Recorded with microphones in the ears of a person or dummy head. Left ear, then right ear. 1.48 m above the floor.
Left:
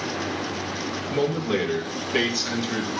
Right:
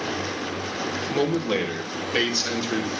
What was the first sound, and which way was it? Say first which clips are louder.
A man speaking: even; 30° right (ahead or behind).